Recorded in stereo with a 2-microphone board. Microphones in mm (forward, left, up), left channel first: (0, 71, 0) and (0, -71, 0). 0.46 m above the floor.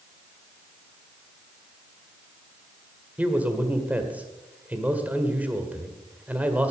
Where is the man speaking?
10° right (ahead or behind), 1.7 m.